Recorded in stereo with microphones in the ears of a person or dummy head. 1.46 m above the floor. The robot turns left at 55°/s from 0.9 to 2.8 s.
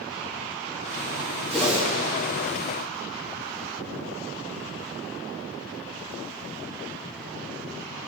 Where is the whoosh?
5° left (ahead or behind), 3 m; by 1.9 s 25° left (ahead or behind), 3 m.